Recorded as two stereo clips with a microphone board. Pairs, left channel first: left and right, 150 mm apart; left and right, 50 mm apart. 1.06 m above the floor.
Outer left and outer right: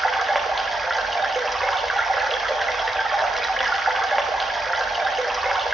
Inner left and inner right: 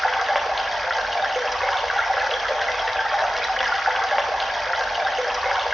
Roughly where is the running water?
Centre.